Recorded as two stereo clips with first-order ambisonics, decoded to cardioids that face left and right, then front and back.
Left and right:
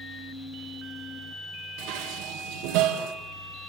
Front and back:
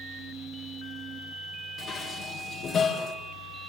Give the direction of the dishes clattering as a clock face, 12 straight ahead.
2 o'clock.